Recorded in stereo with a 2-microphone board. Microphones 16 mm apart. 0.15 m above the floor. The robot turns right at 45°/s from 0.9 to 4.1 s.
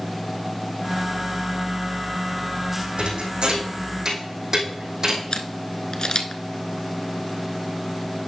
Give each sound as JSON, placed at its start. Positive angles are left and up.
{"t": 3.0, "sound": "a thud", "side_deg": -75, "distance_m": 3.0}
{"t": 5.3, "sound": "a camera shutter", "side_deg": 55, "distance_m": 0.9}